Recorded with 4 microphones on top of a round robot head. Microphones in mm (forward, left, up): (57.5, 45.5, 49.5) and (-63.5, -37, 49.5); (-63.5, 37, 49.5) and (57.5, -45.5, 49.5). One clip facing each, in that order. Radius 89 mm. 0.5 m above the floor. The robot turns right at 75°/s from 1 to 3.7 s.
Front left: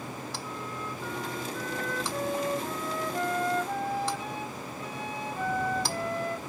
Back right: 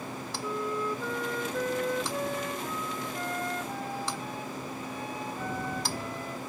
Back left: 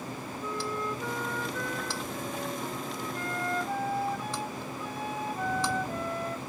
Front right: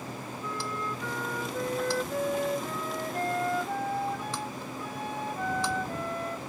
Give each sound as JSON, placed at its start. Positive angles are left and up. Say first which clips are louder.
{"t": 0.4, "sound": "a flute", "louder": "back right 6 dB, back left 2 dB", "azimuth_deg": -145}